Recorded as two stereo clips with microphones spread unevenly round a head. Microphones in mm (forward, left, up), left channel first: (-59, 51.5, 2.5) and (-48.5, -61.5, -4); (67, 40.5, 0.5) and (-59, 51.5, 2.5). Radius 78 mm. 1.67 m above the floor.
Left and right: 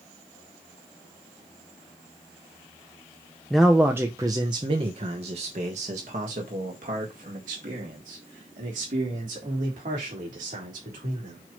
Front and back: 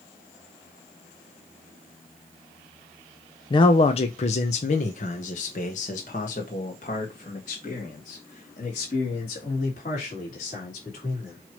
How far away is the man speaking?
About 0.6 m.